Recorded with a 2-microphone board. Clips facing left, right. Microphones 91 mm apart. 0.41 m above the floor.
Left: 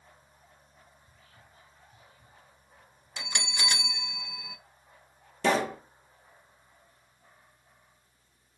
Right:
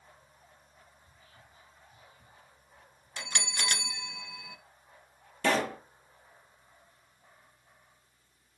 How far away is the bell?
About 0.6 m.